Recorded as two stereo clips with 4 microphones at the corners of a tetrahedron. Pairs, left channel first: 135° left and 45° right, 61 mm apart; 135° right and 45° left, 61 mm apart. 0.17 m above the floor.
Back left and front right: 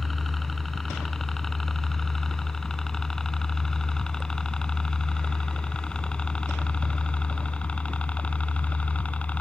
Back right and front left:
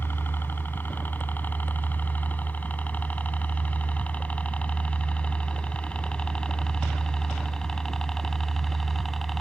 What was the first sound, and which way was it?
A helicopter, 140° right.